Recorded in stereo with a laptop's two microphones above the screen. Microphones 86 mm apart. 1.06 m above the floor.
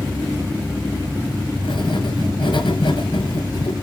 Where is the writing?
70° left (ahead or behind), 6.5 m.